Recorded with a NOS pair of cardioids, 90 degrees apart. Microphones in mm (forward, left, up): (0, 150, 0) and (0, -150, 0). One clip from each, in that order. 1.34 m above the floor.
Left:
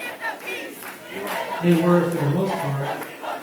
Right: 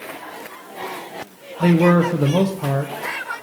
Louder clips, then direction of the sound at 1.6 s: Right 3 dB; 40° right.